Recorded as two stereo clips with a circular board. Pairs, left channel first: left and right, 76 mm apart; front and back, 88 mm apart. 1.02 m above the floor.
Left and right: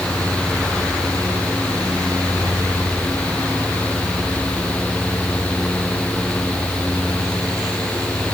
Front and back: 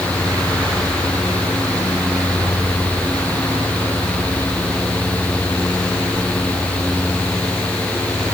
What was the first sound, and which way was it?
Only background noise.